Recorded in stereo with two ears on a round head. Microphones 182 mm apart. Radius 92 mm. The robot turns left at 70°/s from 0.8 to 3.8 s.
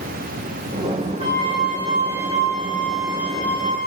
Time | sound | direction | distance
1.2 | a flute | 30° right | 2.5 m